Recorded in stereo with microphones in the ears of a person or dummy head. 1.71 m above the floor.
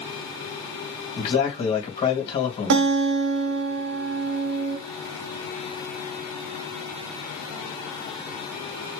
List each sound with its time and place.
1.2 s a man speaking: 50° left (ahead or behind), 1.9 m
2.7 s a guitar: 70° right (ahead or behind), 0.7 m